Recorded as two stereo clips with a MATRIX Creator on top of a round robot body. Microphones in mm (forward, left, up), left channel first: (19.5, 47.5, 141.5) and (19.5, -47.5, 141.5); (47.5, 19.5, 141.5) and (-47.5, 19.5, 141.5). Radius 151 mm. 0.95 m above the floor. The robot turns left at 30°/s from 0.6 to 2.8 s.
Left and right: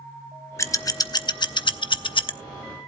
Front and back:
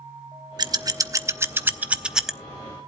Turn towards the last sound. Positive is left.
turn(degrees=80)